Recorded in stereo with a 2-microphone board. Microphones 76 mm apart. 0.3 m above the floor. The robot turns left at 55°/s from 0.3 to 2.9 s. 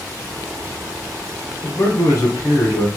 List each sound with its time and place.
1.6 s a man speaking: 140° left, 1.8 m; by 2.9 s 75° left, 1.8 m